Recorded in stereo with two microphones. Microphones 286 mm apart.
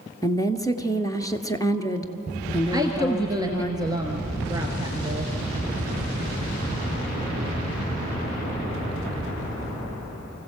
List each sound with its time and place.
0.2 s a woman speaking: 10° left (ahead or behind), 1.3 m
2.7 s a woman speaking: 15° right (ahead or behind), 1.4 m